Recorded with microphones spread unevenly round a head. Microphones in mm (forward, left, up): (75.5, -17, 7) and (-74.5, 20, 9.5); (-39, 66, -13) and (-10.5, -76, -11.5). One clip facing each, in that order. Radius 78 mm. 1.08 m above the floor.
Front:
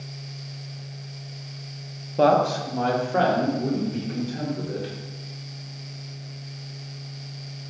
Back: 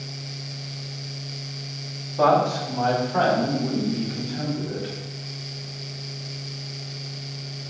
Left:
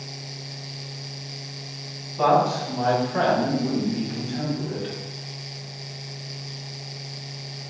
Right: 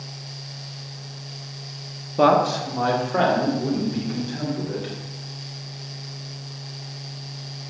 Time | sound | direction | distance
2.2 | a man speaking | 65° right | 1.1 m